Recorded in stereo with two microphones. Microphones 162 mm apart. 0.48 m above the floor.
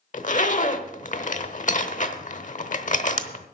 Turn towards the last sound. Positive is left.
turn(degrees=50)  # may be behind; listen again after turning